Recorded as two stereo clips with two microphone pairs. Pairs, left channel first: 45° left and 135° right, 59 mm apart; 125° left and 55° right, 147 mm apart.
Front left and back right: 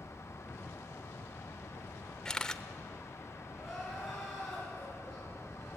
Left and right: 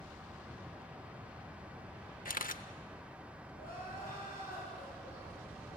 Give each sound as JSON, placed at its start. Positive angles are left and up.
{"t": 2.2, "sound": "a camera shutter", "azimuth_deg": 125, "distance_m": 0.7}
{"t": 3.5, "sound": "crying", "azimuth_deg": 135, "distance_m": 9.5}